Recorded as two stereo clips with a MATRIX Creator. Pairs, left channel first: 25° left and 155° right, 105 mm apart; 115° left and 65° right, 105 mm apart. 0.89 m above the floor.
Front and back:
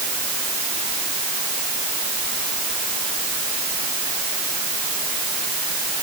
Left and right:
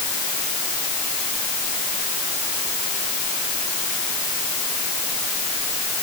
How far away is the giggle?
I don't hear a giggle.